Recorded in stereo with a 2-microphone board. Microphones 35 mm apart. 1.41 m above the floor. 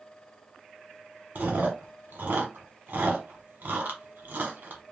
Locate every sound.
1.4 s chewing: 60° right (ahead or behind), 1.0 m